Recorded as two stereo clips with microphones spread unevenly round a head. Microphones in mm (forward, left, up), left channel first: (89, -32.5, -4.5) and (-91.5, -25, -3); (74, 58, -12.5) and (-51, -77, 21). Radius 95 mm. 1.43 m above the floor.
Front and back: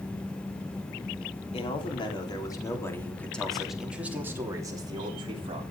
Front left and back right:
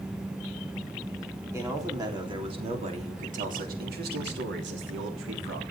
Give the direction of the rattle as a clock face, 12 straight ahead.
No rattle in this recording.